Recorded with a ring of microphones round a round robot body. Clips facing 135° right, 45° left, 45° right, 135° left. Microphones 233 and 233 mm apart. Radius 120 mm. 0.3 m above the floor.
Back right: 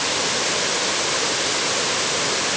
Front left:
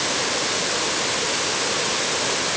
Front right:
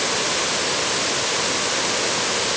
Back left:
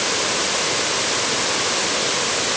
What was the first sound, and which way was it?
Only background noise.